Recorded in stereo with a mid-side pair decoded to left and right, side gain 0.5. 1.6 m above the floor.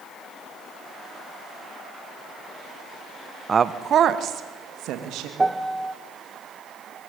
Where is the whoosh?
I don't hear a whoosh.